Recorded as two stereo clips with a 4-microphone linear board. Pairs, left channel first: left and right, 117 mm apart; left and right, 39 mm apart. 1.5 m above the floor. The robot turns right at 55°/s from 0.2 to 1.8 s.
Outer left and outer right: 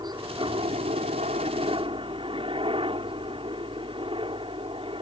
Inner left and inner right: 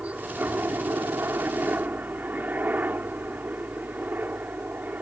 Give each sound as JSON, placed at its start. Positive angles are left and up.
{"t": 0.0, "sound": "a helicopter", "azimuth_deg": -140}